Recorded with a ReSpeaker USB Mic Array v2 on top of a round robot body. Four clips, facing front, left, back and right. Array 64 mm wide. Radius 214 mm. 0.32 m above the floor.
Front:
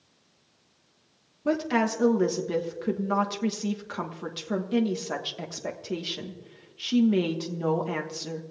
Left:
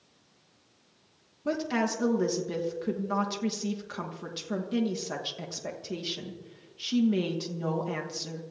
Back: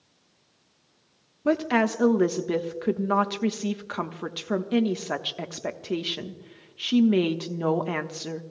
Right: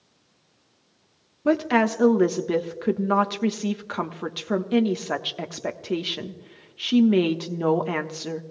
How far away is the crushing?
No crushing in this recording.